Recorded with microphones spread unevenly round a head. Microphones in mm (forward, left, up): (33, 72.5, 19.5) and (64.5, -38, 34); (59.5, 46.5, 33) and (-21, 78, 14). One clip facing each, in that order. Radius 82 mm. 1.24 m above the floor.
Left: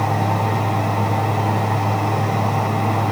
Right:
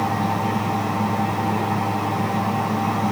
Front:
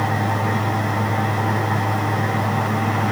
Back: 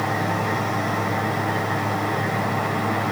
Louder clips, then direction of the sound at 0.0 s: Left 2 dB, front 2 dB; 75° left.